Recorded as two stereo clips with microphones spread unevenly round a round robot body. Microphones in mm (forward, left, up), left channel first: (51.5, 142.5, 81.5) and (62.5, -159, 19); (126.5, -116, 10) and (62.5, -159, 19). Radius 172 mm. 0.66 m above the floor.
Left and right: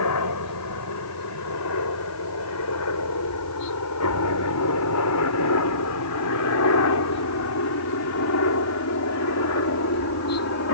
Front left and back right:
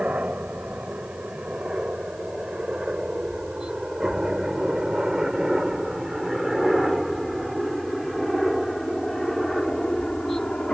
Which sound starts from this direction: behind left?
A helicopter, at 0.0 s.